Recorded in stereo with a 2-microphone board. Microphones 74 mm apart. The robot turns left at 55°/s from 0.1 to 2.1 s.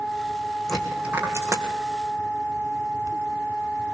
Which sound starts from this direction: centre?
A dropped coin, at 0.7 s.